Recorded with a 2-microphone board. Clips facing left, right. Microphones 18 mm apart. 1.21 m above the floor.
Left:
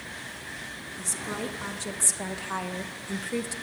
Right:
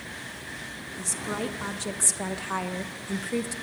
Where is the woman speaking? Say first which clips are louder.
Right 2 dB; 5° right (ahead or behind), 2.5 m; by 3.5 s 10° left (ahead or behind), 0.9 m.